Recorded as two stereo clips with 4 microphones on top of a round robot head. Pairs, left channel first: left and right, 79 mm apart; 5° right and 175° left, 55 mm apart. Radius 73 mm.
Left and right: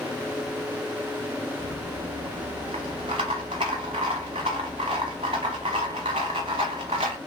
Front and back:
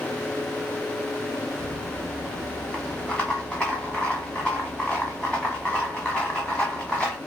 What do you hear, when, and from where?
1.6 s a rattle: 85° right, 0.8 m